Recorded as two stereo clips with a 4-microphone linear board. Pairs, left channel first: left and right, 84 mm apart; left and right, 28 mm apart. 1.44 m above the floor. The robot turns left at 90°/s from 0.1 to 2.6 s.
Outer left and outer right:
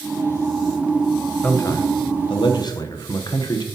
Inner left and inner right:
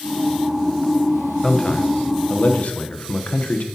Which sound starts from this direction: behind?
A man speaking, at 1.4 s.